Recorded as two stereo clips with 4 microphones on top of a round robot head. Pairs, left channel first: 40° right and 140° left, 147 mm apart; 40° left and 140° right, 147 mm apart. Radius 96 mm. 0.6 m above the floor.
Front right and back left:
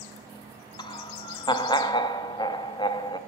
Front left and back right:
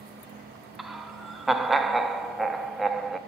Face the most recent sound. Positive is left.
turn(degrees=-50)